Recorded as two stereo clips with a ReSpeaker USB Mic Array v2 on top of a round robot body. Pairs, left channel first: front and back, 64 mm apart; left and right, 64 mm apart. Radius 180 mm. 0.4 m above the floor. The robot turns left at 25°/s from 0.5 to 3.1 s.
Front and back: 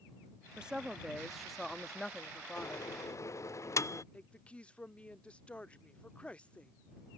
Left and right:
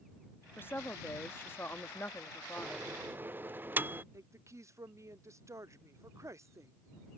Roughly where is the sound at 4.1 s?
Ahead right.